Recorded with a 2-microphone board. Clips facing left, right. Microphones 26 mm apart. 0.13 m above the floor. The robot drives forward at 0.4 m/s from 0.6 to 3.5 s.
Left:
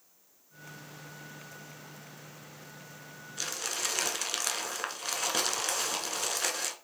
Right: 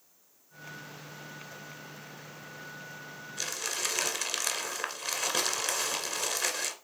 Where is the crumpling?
5° left (ahead or behind), 1.6 m.